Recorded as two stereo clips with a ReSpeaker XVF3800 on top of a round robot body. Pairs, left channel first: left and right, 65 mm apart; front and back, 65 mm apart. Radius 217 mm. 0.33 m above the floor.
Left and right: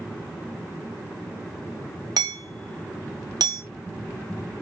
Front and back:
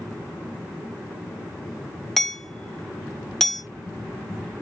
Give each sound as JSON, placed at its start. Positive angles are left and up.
{"t": 2.2, "sound": "hammering", "azimuth_deg": -85, "distance_m": 2.0}